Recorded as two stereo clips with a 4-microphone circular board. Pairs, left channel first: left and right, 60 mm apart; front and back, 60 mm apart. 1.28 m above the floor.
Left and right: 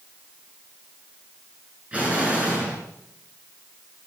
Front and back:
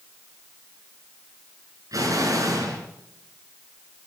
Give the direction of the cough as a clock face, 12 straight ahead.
No cough in this recording.